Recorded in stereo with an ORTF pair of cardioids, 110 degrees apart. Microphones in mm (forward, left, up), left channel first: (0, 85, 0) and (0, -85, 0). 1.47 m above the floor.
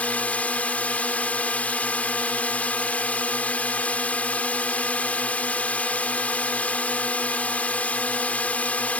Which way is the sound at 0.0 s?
10° left.